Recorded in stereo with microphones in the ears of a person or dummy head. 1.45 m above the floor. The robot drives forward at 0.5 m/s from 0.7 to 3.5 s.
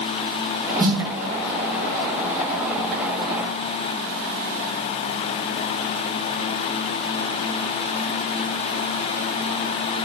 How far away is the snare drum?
About 1.3 m.